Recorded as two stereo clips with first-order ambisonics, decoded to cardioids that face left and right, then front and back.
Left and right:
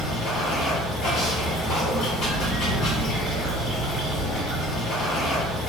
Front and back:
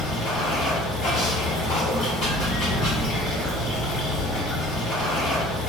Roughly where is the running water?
Ahead left.